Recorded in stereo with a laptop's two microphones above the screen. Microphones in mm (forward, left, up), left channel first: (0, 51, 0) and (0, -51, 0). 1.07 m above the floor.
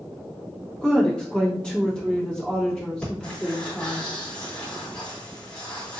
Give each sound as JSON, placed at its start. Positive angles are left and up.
{"t": 0.8, "sound": "a woman speaking", "side_deg": 10, "distance_m": 1.5}
{"t": 3.0, "sound": "breathing", "side_deg": 10, "distance_m": 1.6}